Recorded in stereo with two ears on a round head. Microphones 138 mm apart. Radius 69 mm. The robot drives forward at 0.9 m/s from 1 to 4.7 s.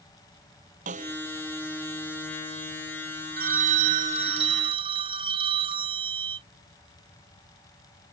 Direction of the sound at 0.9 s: 55° right (ahead or behind).